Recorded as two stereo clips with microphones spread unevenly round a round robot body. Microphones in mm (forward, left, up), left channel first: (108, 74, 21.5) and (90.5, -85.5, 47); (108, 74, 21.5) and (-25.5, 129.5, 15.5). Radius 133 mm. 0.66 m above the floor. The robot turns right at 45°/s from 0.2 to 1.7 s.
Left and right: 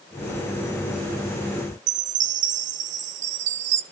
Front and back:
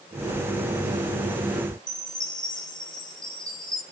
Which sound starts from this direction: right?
A chime, at 1.9 s.